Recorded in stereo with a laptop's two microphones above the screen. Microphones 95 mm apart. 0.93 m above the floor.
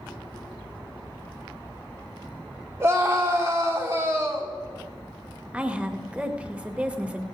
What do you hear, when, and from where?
2.8 s a scream: 25° right (ahead or behind), 3 m
5.5 s a woman speaking: 15° right (ahead or behind), 0.8 m